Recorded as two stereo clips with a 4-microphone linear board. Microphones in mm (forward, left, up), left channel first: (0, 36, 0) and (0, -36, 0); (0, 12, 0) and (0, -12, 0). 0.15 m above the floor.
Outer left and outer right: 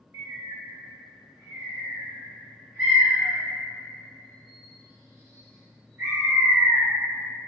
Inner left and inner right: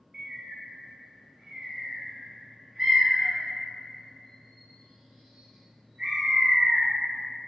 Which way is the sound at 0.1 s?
30° right (ahead or behind).